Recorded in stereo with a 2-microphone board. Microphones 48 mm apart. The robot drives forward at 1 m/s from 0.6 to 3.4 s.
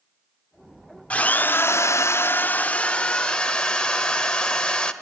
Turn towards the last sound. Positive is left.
turn(degrees=15)  # may be behind; listen again after turning